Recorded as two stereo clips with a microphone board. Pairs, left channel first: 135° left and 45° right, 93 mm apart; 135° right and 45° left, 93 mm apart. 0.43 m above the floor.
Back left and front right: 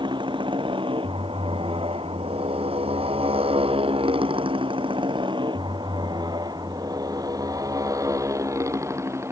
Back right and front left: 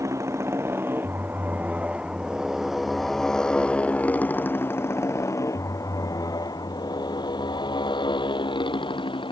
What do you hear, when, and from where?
0.0 s a motorcycle: 15° right; by 9.3 s 105° right